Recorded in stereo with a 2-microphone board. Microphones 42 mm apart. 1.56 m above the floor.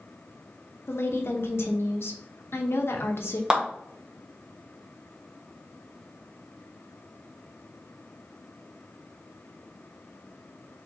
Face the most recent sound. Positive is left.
turn(degrees=-20)  # may be behind; listen again after turning